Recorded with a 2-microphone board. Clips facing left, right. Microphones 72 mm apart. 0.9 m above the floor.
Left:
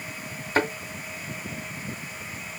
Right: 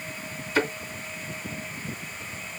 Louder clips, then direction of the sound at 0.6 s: Left 1 dB; 45° left (ahead or behind).